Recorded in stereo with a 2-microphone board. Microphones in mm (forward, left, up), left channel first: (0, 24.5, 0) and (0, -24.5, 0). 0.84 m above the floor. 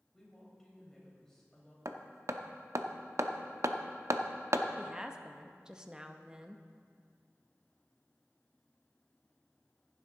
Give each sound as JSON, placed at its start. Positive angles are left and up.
{"t": 0.1, "sound": "a woman speaking", "side_deg": 15, "distance_m": 4.0}
{"t": 1.9, "sound": "hammering", "side_deg": -65, "distance_m": 0.7}
{"t": 4.8, "sound": "a woman speaking", "side_deg": -15, "distance_m": 0.8}